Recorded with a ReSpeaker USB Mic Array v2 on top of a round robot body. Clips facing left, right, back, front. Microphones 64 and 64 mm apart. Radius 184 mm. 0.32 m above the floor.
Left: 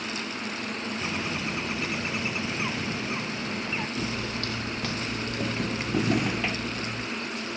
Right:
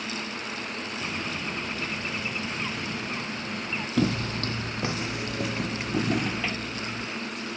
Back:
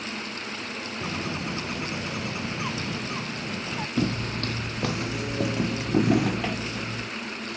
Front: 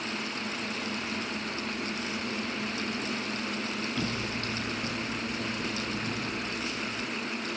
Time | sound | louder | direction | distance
1.0 | a bird | left 1 dB, back 3 dB | 170° left | ?
4.0 | footsteps | right 5 dB, back 5 dB | 125° right | ?